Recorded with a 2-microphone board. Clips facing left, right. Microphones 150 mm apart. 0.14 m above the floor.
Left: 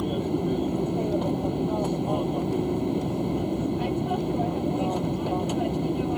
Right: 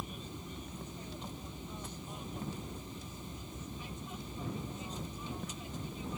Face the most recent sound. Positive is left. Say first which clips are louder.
# left 20 dB
turn(degrees=70)  # may be behind; listen again after turning